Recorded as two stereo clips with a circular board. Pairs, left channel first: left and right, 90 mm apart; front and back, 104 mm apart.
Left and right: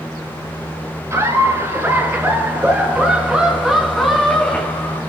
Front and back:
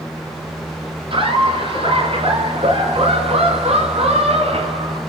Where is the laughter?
145° right, 7 m; by 5.0 s 155° left, 3.5 m.